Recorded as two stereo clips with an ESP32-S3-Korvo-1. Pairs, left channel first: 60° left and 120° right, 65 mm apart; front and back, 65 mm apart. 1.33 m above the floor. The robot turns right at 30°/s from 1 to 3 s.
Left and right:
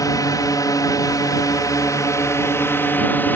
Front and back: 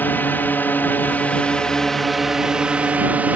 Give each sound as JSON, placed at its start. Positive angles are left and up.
{"t": 0.0, "sound": "a drone", "azimuth_deg": 55}